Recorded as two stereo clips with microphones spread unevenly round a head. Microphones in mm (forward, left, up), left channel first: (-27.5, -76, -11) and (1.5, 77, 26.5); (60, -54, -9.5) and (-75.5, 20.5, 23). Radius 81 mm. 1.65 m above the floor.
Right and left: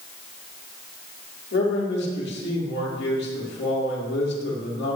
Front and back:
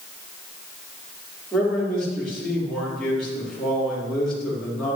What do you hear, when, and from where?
1.5 s a man speaking: 115° right, 5 m